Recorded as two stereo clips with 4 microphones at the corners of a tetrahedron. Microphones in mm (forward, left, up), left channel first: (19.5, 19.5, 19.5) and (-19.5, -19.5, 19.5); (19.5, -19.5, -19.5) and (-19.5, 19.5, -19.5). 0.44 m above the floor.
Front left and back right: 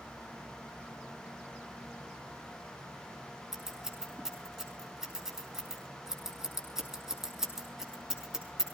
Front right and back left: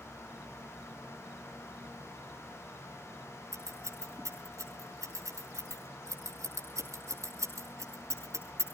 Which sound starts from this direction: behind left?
Scissors, at 3.5 s.